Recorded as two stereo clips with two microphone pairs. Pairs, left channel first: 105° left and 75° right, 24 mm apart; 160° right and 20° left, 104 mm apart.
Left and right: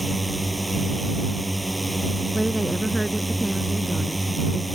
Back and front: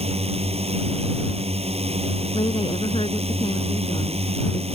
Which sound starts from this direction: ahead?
A drone, at 0.0 s.